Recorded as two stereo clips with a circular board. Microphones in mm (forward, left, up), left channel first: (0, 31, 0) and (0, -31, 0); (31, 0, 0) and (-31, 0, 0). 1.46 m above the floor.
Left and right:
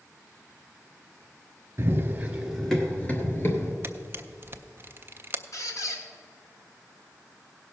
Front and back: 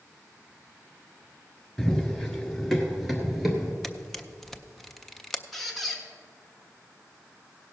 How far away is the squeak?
About 1.5 m.